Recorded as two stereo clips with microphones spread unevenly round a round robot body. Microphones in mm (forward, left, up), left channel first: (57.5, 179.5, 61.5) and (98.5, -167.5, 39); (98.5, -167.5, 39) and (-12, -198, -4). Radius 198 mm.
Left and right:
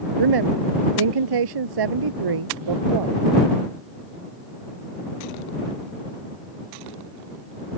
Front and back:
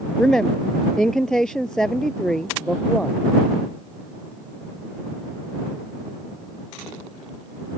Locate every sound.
0.2 s a woman speaking: 70° right